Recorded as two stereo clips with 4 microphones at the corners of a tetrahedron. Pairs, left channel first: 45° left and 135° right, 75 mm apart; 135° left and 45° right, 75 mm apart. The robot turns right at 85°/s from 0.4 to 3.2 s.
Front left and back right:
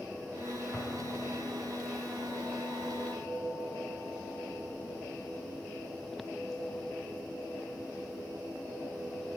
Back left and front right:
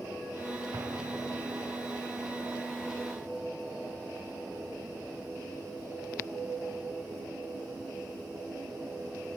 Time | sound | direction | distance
0.7 | an explosion | 15° right | 1.4 m